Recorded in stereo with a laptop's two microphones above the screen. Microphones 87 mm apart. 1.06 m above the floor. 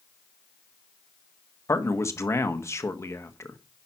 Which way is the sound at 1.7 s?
35° left (ahead or behind).